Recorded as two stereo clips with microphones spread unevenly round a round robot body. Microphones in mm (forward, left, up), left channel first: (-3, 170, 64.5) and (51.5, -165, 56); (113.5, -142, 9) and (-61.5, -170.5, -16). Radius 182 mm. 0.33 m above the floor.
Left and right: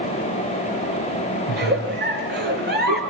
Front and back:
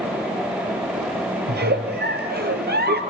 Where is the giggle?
145° right, 4 m.